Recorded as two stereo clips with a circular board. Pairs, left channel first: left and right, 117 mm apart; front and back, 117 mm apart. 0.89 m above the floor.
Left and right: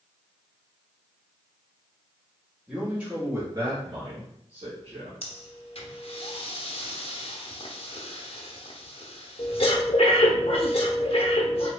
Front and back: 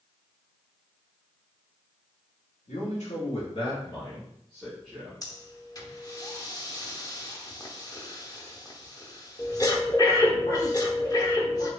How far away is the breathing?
About 0.9 m.